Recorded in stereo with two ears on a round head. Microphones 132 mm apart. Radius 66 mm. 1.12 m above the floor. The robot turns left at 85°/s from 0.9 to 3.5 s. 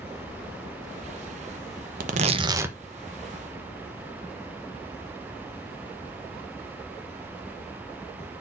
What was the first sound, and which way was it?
Tearing paper, 105° right.